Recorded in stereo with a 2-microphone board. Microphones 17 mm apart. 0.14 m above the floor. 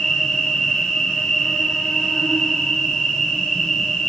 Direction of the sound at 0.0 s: 75° left (ahead or behind).